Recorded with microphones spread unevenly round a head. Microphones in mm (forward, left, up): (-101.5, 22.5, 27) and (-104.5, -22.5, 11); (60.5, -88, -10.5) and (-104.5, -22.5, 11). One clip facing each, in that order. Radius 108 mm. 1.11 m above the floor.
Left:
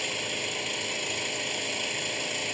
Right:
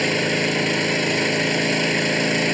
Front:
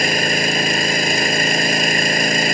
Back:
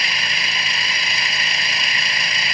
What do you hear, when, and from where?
0.0 s an engine running: 65° right